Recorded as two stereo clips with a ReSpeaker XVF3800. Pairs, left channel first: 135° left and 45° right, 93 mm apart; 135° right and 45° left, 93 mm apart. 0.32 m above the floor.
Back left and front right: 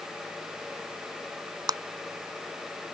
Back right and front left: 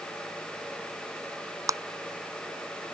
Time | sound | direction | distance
1.7 | a clap | 5° right | ?